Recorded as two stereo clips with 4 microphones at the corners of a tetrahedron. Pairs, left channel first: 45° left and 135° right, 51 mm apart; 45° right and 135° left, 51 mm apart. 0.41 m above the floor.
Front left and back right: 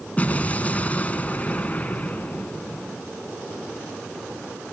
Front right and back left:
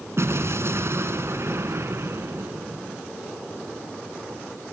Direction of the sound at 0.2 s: 105° left.